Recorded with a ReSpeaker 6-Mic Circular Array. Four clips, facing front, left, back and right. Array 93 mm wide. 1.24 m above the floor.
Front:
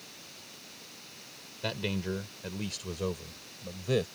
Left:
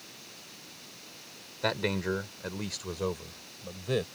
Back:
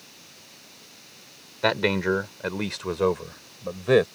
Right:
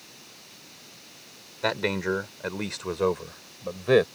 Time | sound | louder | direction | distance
1.6 | a man speaking | right 4 dB, back 11 dB | 170° right | ?